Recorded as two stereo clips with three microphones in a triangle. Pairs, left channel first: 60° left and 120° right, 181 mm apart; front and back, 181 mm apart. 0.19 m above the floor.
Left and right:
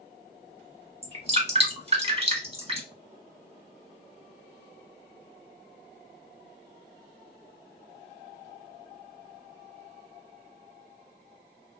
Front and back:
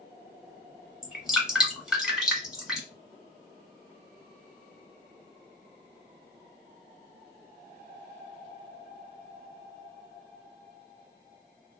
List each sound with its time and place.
1.0 s dripping: 95° right, 1.1 m